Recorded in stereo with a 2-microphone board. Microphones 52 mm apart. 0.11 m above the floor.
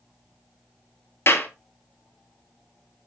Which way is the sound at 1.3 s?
55° left (ahead or behind).